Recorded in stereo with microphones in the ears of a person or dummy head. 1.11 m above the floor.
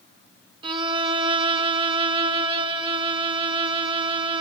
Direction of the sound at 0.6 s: 30° right (ahead or behind).